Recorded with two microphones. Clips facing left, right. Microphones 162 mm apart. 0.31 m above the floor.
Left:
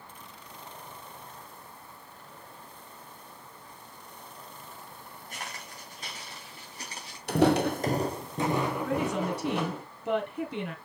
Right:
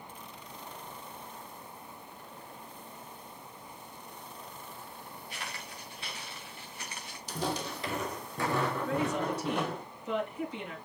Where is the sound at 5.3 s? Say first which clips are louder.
Left 2 dB; 45° left (ahead or behind), 3 m; by 7.2 s 35° left (ahead or behind), 4 m.